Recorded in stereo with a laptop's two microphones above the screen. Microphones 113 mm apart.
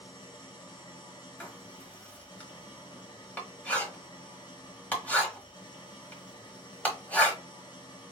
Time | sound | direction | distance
0.0 | an engine running | 40° left (ahead or behind) | 0.9 m
1.4 | writing | 15° left (ahead or behind) | 1.2 m